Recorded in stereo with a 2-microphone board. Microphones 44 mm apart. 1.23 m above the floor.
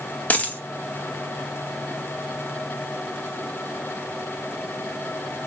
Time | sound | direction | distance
0.3 | a dropped coin | 35° left (ahead or behind) | 0.6 m